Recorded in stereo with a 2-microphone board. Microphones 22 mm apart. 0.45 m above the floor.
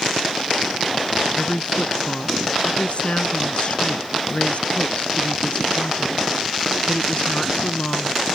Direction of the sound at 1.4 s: 50° left (ahead or behind).